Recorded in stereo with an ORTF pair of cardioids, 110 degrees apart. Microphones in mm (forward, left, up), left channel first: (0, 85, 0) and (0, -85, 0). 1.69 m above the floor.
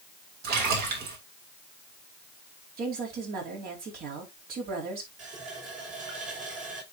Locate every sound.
0.4 s a splash: 70° right, 3 m
2.8 s a woman speaking: 65° right, 4 m
5.2 s a running tap: 50° right, 4 m